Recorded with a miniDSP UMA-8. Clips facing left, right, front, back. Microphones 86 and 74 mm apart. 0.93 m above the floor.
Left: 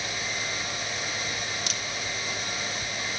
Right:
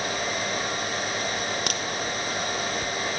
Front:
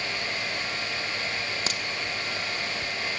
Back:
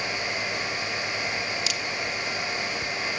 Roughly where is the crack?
Ahead right.